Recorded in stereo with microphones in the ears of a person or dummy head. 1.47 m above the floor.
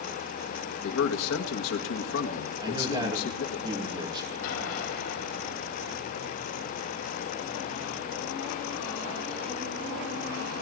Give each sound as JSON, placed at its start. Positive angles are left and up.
{"t": 0.8, "sound": "a man speaking", "side_deg": 75, "distance_m": 1.5}
{"t": 2.6, "sound": "a man speaking", "side_deg": -20, "distance_m": 2.0}
{"t": 4.4, "sound": "an explosion", "side_deg": 80, "distance_m": 4.0}